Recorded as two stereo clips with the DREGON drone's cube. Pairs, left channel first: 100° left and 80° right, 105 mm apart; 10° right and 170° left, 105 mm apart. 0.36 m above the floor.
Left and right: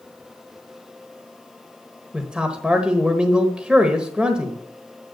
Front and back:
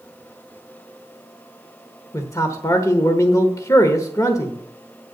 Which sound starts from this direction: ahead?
A man speaking, at 2.1 s.